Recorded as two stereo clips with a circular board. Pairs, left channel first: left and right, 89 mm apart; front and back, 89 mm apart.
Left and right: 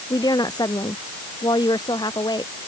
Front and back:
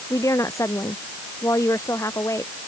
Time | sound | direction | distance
0.1 | a woman speaking | 50° left | ?